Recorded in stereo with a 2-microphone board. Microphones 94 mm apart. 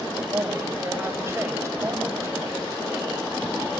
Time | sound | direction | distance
0.3 | a woman speaking | 30° right (ahead or behind) | 6 m